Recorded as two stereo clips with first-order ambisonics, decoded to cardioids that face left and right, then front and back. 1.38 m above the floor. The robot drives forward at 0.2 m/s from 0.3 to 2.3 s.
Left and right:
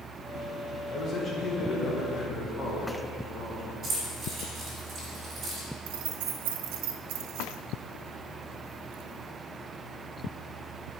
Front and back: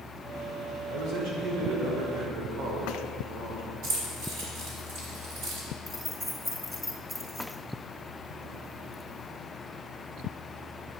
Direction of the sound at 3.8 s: 155° right.